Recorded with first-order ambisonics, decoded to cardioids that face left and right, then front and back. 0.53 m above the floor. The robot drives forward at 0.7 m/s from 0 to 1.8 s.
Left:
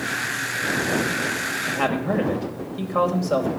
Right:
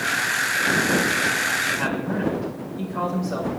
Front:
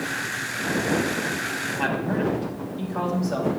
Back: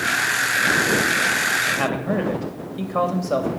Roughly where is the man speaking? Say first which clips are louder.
Left 1 dB, back 4 dB; behind left.